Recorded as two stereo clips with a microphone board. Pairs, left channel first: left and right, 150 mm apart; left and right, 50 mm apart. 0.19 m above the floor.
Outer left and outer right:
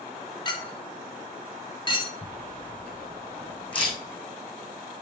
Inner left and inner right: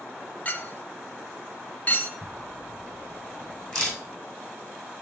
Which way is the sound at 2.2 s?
10° left (ahead or behind).